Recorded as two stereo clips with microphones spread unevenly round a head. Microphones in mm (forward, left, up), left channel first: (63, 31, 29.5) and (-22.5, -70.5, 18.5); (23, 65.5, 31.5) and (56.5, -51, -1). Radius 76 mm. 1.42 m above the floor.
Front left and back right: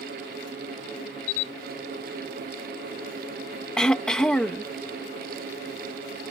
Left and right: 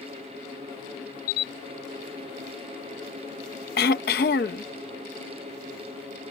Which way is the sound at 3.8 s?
135° left.